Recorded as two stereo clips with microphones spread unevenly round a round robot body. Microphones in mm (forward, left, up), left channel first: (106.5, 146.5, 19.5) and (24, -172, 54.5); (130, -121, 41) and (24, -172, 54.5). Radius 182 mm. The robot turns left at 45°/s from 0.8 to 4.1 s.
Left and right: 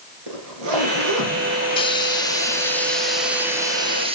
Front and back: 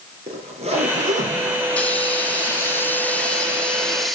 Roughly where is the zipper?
Behind right.